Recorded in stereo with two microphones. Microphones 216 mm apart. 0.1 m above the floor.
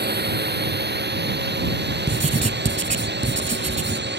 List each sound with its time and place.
0.0 s a drone: 50° right (ahead or behind); by 4.2 s 55° right (ahead or behind)
2.1 s writing: 35° right (ahead or behind)